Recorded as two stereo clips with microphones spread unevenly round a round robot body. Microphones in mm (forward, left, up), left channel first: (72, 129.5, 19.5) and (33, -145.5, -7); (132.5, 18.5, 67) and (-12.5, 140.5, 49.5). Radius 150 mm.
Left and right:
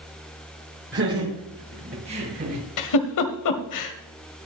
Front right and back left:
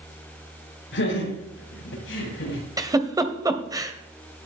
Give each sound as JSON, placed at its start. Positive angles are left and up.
{"t": 0.9, "sound": "laughter", "azimuth_deg": -55, "distance_m": 5.0}
{"t": 2.8, "sound": "a giggle", "azimuth_deg": 65, "distance_m": 1.5}